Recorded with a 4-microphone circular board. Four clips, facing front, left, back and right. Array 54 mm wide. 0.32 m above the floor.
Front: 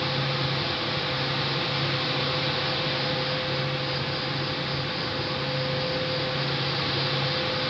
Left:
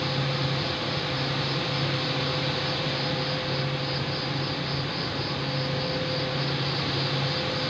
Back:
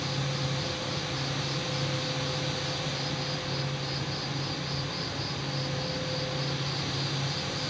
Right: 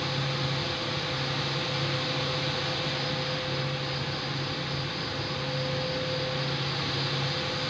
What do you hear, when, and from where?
0.0 s an insect: 50° left, 3 m